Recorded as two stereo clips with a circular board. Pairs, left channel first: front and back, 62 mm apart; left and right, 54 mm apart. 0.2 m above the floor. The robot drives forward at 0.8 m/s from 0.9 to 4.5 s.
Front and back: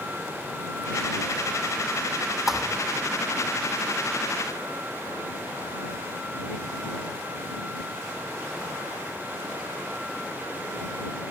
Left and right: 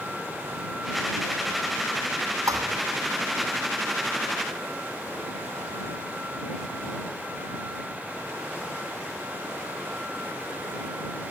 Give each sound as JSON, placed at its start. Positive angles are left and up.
{"t": 2.5, "sound": "a thud", "azimuth_deg": -95}